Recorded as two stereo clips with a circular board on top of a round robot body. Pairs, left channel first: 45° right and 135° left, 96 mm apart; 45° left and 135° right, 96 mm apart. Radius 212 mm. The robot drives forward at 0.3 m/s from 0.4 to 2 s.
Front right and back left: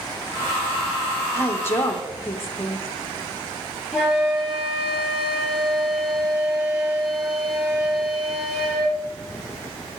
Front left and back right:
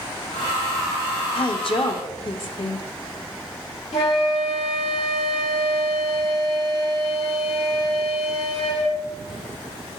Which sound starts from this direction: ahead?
A woman speaking, at 1.3 s.